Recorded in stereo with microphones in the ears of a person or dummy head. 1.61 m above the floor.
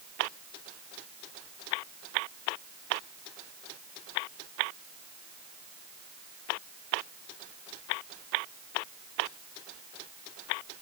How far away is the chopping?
I don't hear chopping.